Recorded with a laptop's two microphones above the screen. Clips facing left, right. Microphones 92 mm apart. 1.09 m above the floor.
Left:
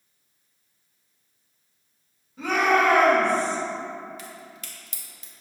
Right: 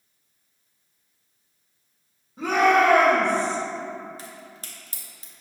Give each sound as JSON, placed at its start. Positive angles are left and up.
{"t": 2.4, "sound": "a shout", "side_deg": -40, "distance_m": 1.1}
{"t": 4.2, "sound": "a crack", "side_deg": -35, "distance_m": 0.6}